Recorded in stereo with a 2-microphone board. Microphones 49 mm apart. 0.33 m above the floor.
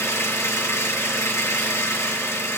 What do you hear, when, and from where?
0.0 s an engine running: 75° left (ahead or behind), 3 m